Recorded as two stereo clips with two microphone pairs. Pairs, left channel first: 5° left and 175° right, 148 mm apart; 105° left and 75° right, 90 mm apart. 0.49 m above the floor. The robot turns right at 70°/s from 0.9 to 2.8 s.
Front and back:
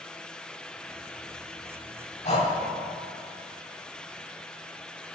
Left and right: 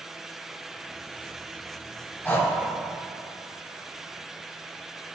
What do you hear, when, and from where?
2.2 s breathing: 40° left, 0.9 m; by 2.5 s 60° left, 0.9 m